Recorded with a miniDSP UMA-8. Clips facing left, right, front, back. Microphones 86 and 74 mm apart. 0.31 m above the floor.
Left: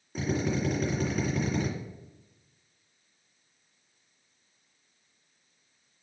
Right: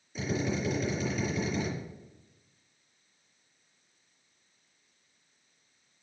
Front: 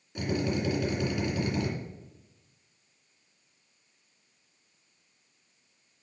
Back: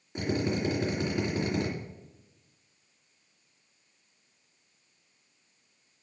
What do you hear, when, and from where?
0.1 s a drill: 120° left, 3 m